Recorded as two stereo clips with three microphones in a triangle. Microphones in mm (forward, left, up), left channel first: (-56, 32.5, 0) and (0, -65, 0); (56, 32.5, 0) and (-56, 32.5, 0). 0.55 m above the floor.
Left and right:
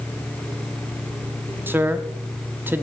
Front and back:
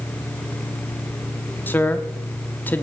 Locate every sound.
1.7 s a man speaking: 35° right, 0.7 m